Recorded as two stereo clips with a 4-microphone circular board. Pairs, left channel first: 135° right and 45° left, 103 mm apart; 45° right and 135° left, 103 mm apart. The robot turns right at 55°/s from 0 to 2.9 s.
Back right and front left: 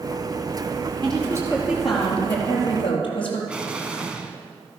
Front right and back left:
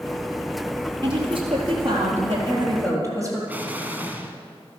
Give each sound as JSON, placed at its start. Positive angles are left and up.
{"t": 1.0, "sound": "a woman speaking", "azimuth_deg": 85, "distance_m": 3.5}
{"t": 3.5, "sound": "an explosion", "azimuth_deg": 105, "distance_m": 1.2}